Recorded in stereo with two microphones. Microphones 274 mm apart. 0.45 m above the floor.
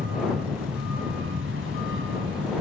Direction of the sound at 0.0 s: 50° right (ahead or behind).